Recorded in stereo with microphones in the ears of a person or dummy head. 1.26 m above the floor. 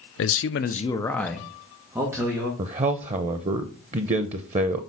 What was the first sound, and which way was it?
A man speaking, 65° left (ahead or behind).